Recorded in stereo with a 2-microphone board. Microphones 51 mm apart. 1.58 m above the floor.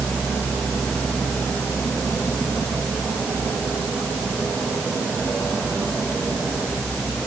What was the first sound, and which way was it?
Only background noise.